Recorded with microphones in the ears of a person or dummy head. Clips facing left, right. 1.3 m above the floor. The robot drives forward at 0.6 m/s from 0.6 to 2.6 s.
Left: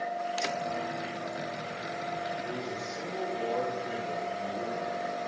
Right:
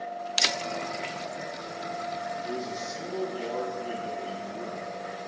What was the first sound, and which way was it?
A man speaking, 40° right (ahead or behind).